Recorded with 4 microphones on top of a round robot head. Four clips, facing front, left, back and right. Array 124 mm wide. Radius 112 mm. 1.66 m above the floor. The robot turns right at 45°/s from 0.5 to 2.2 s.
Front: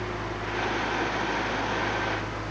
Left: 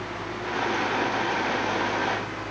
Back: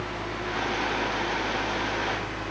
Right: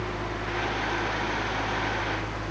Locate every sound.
Only background noise.